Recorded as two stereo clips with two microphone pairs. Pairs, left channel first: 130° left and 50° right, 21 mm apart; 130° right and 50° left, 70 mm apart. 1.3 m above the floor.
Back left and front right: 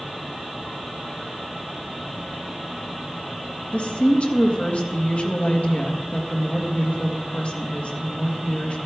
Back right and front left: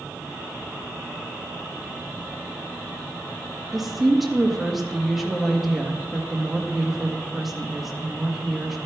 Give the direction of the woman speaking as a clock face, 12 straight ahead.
7 o'clock.